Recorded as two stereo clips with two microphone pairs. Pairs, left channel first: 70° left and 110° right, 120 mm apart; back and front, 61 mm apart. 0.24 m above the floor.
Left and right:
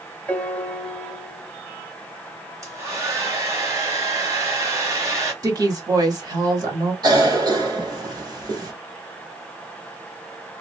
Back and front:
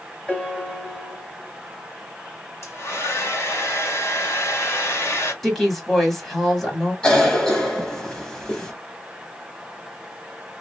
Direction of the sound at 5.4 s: 95° right.